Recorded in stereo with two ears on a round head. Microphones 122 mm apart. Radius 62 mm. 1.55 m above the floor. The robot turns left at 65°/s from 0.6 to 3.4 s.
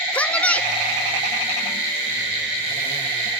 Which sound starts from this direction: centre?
A woman speaking, at 0.1 s.